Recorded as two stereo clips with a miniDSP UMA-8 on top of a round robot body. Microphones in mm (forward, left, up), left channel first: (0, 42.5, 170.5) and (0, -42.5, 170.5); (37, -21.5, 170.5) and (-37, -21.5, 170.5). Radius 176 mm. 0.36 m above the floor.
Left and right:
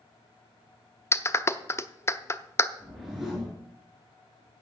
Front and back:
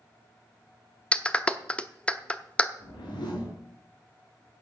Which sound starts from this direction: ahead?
A whoosh, at 2.8 s.